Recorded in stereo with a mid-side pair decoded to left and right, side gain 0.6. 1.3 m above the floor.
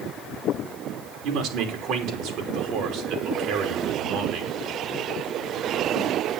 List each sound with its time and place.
1.2 s a man speaking: 70° right, 3 m